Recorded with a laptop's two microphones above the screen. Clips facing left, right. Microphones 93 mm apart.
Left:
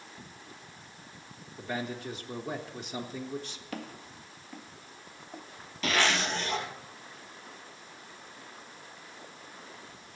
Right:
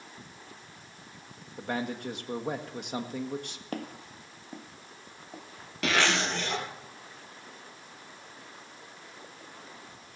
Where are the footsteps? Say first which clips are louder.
Right 4 dB; 45° right (ahead or behind), 1.3 m; by 5.4 s 10° right (ahead or behind), 1.0 m.